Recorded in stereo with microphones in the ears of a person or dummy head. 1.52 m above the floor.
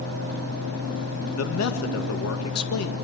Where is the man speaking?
80° left, 1.9 m.